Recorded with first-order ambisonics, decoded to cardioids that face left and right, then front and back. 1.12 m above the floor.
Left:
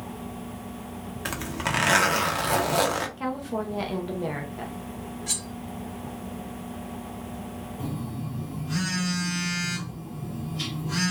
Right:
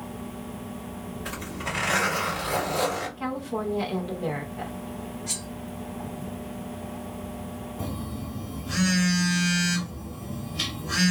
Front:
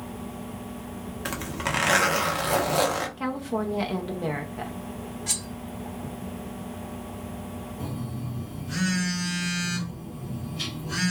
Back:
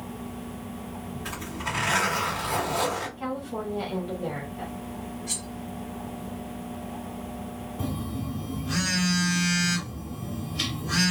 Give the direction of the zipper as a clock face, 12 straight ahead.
10 o'clock.